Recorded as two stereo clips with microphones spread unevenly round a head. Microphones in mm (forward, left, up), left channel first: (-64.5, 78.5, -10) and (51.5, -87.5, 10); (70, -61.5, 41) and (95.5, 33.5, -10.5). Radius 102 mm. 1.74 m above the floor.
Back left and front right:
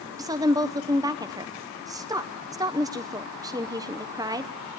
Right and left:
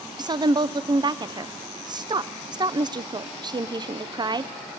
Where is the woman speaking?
15° left, 0.8 m.